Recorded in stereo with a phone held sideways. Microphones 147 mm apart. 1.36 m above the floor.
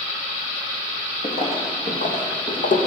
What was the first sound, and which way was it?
Footsteps, 50° left (ahead or behind).